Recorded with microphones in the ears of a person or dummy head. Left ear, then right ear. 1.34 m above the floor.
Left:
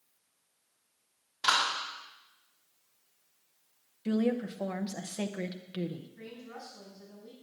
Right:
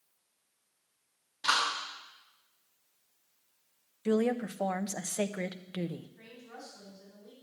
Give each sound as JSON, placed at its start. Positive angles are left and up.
{"t": 1.4, "sound": "a clap", "side_deg": 30, "distance_m": 6.5}
{"t": 4.0, "sound": "a woman speaking", "side_deg": -25, "distance_m": 0.7}
{"t": 6.2, "sound": "a woman speaking", "side_deg": 0, "distance_m": 9.5}